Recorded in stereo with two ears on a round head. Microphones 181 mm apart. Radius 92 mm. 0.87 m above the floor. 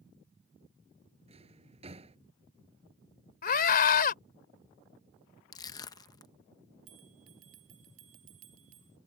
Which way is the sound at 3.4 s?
50° left (ahead or behind).